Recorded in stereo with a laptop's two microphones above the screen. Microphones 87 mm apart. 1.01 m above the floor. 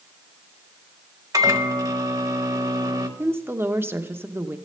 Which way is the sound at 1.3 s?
40° right (ahead or behind).